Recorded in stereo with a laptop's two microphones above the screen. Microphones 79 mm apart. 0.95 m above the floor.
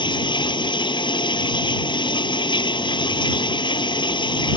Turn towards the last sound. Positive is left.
turn(degrees=85)